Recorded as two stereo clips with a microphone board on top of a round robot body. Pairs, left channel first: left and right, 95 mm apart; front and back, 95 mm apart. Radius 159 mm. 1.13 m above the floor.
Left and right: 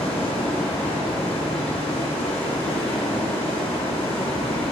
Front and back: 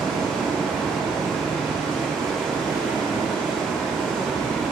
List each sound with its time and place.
0.0 s running water: 80° left, 1.6 m